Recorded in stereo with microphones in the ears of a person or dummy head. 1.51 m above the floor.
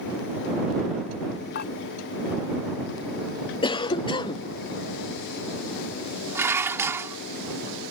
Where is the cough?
30° left (ahead or behind).